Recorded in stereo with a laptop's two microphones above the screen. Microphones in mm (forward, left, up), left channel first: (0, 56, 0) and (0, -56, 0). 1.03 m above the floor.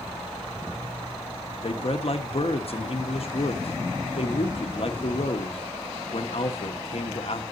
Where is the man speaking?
60° left (ahead or behind), 1.2 m.